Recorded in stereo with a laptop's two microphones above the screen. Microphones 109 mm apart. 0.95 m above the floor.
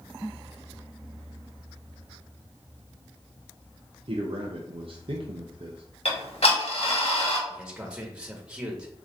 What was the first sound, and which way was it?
A man speaking, 55° right (ahead or behind).